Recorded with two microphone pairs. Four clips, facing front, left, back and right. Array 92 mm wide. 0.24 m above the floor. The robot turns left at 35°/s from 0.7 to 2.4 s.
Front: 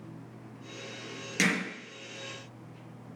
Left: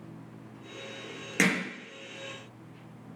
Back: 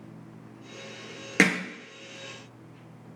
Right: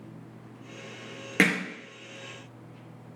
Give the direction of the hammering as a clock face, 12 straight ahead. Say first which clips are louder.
Right 3 dB, back 6 dB; 5 o'clock.